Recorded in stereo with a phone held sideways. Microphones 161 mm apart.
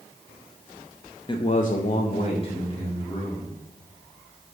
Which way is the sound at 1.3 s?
30° left (ahead or behind).